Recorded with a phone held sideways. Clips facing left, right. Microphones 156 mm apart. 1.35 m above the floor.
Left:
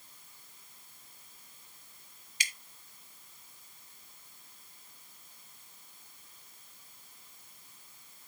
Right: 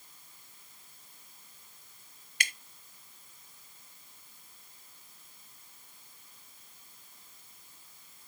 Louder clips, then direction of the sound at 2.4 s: Right 4 dB; 65° right (ahead or behind).